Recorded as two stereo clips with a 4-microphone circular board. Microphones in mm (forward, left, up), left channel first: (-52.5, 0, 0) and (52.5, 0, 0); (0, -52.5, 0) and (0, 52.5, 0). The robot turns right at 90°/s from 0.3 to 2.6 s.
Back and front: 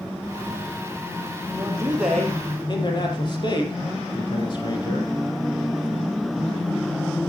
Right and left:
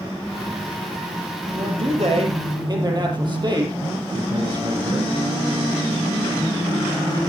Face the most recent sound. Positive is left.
turn(degrees=135)